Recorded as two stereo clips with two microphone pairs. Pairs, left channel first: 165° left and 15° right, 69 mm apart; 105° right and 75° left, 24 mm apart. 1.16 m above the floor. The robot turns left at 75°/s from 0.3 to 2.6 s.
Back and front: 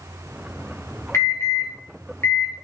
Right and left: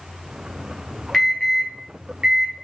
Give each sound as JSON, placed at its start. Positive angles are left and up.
{"t": 1.1, "sound": "an alarm", "azimuth_deg": -170, "distance_m": 1.4}